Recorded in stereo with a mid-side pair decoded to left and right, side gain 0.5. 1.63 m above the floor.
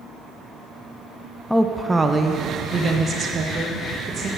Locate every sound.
1.5 s a woman speaking: 5° left, 0.5 m; by 4.3 s 50° right, 2 m